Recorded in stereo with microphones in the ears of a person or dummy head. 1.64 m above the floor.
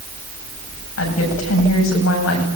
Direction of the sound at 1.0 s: 75° left (ahead or behind).